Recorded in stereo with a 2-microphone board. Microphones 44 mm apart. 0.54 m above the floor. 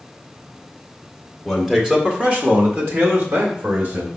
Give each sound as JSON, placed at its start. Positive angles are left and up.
{"t": 1.4, "sound": "a man speaking", "side_deg": -5, "distance_m": 1.8}